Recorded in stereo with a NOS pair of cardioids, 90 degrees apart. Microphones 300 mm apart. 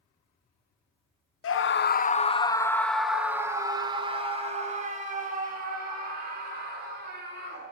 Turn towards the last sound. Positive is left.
turn(degrees=-35)